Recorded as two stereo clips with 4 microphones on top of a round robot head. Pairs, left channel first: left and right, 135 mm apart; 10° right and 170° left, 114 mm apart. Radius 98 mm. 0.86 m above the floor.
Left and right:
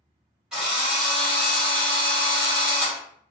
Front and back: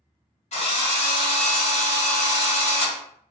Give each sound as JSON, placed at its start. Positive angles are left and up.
{"t": 0.5, "sound": "a drill", "azimuth_deg": -5, "distance_m": 1.4}